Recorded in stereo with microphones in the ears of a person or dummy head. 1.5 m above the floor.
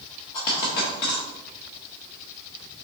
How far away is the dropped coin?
About 0.9 m.